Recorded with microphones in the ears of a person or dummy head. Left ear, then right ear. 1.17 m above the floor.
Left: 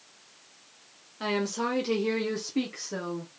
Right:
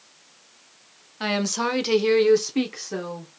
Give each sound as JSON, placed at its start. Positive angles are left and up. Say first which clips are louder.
{"t": 1.2, "sound": "a woman speaking", "louder": "right 4 dB", "side_deg": -15, "distance_m": 0.7}